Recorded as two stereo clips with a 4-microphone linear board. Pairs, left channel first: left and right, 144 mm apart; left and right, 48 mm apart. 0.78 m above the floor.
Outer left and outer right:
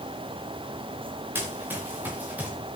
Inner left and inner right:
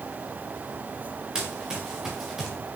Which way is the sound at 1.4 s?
15° right (ahead or behind).